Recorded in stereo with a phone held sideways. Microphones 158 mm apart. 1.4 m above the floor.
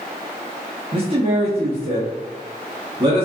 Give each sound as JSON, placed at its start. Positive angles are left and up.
{"t": 0.9, "sound": "a man speaking", "side_deg": -35, "distance_m": 1.0}